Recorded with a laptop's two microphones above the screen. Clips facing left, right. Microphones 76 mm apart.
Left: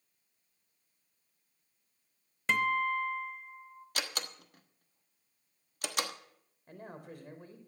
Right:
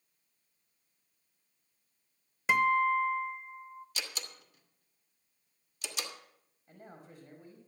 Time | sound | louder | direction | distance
2.5 | a guitar | right 4 dB | 10° right (ahead or behind) | 0.8 m
4.0 | a door slam | left 7 dB | 55° left (ahead or behind) | 1.1 m
6.7 | a man speaking | left 5 dB | 70° left (ahead or behind) | 3.5 m